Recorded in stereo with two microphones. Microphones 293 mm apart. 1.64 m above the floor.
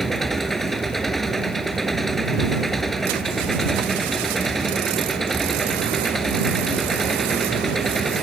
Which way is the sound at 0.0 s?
Centre (ahead or behind).